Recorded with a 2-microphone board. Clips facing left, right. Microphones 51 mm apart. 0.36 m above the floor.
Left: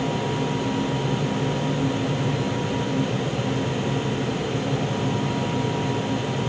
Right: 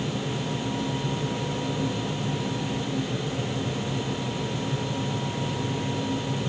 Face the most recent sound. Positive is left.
No sound to turn to.